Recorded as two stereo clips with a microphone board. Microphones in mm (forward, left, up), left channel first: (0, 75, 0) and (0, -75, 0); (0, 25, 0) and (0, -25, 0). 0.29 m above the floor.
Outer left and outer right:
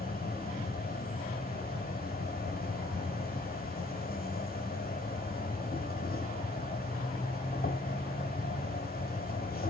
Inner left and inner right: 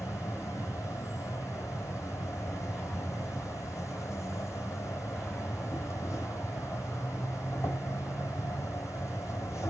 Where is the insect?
75° left (ahead or behind), 1.9 m.